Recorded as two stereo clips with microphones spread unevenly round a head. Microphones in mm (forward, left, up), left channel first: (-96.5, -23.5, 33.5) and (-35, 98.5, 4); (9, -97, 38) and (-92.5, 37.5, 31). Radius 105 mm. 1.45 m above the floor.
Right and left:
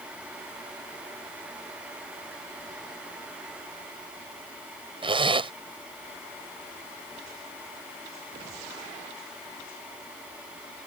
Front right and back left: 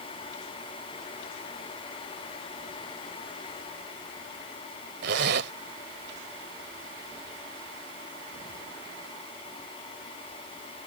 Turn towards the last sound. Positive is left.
turn(degrees=115)